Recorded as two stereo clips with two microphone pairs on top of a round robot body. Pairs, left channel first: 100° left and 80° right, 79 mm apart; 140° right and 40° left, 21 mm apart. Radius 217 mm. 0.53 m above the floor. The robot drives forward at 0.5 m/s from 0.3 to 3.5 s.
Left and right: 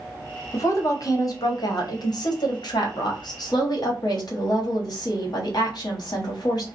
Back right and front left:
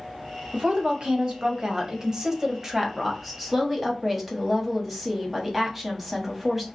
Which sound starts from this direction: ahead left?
A woman speaking, at 0.5 s.